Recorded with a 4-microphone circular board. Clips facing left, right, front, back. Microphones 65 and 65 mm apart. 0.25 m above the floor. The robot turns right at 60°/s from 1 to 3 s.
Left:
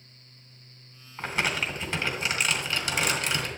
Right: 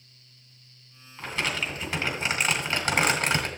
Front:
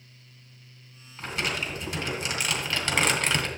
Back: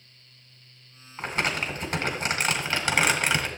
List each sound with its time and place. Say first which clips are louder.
1.2 s crumpling: left 1 dB, back 3 dB; 145° left, 1.8 m; by 3.5 s 105° right, 1.8 m